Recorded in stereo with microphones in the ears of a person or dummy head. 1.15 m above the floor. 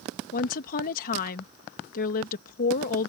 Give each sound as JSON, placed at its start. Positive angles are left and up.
{"t": 0.3, "sound": "a woman speaking", "side_deg": 55}